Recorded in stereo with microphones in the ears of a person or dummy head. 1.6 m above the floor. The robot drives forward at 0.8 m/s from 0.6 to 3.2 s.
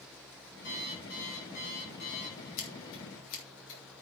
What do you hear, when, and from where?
0.6 s an alarm clock: 65° left (ahead or behind), 5 m; by 2.5 s 50° left (ahead or behind), 6 m
2.6 s scissors: 70° left (ahead or behind), 4 m; by 4.0 s 80° left, 4 m